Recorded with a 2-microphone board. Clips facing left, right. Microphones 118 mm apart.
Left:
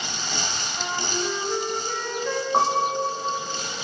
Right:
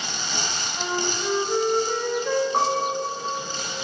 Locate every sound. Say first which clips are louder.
0.8 s a flute: right 2 dB; 5° right (ahead or behind), 7 m
2.5 s a piano: left 1 dB; 20° left (ahead or behind), 4 m